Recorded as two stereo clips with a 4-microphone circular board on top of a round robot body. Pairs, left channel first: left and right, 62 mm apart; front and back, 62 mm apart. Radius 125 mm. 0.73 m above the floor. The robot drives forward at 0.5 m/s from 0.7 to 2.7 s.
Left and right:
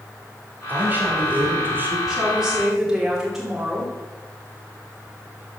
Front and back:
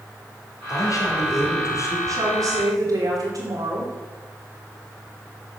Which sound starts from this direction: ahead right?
A man speaking, at 0.7 s.